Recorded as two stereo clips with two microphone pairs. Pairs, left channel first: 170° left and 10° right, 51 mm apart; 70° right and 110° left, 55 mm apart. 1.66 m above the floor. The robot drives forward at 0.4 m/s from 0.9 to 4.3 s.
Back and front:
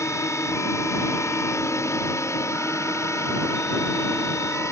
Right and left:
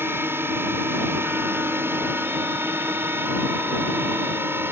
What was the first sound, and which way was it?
A drone, 150° left.